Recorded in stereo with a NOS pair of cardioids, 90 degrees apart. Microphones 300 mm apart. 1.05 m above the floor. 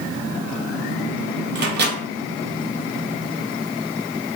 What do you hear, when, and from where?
1.6 s a microwave: 35° right, 0.9 m